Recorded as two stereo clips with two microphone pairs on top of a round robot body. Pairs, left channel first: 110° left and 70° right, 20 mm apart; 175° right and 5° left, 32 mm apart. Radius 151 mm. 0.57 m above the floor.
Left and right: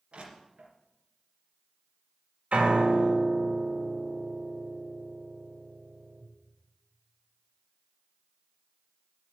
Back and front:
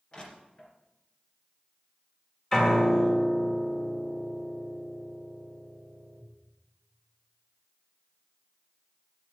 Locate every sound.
0.1 s crushing: 110° right, 2.5 m
2.5 s a piano: 100° right, 2.5 m